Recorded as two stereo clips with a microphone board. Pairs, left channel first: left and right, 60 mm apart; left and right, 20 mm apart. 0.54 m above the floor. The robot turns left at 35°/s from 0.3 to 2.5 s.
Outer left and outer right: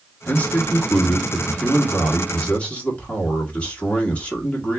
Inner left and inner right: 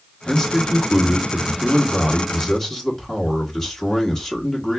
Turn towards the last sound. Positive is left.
turn(degrees=45)